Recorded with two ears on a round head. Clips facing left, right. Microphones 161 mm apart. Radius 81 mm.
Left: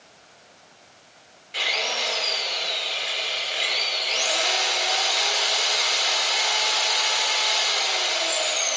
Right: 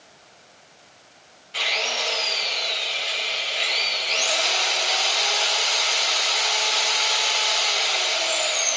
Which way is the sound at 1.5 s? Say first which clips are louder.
Right 1 dB; 20° left (ahead or behind).